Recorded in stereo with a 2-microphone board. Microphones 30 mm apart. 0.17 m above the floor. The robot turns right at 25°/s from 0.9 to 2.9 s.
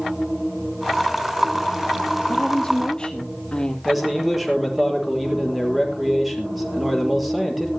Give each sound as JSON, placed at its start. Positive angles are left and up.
{"t": 2.3, "sound": "a woman speaking", "side_deg": 10, "distance_m": 4.5}
{"t": 3.9, "sound": "a man speaking", "side_deg": -5, "distance_m": 5.0}